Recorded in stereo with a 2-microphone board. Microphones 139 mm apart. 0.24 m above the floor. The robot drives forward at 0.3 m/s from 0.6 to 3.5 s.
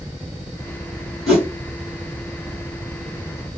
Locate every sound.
1.3 s a whoosh: 5° right (ahead or behind), 1.9 m